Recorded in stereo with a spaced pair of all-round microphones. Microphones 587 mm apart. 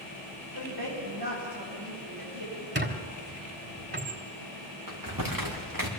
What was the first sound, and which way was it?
A woman speaking, 45° right (ahead or behind).